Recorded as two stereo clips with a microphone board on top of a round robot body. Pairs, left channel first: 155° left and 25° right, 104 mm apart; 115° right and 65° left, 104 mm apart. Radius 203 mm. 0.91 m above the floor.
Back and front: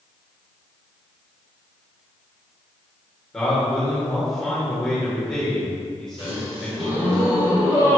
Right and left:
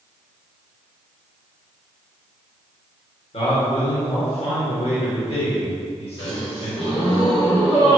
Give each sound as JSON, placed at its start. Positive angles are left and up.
{"t": 3.3, "sound": "a man speaking", "azimuth_deg": -120, "distance_m": 2.5}
{"t": 6.2, "sound": "a gasp", "azimuth_deg": -55, "distance_m": 2.5}